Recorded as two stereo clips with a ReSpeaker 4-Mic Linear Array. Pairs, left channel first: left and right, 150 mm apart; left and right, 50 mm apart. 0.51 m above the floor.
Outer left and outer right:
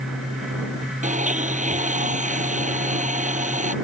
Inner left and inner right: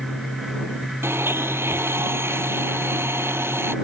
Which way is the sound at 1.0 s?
55° right (ahead or behind).